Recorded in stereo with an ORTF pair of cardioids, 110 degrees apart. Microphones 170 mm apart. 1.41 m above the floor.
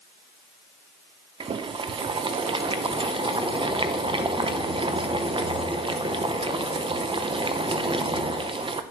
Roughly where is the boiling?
Ahead right.